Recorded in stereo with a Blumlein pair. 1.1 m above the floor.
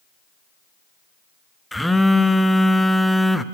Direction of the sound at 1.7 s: 5° left.